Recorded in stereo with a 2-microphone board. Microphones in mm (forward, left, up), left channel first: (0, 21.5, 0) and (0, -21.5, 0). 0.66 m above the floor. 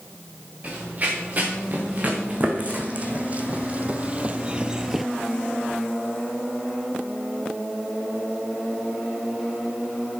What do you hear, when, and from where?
0.6 s running footsteps: 35° right (ahead or behind), 4 m; by 5.1 s centre (ahead or behind), 0.6 m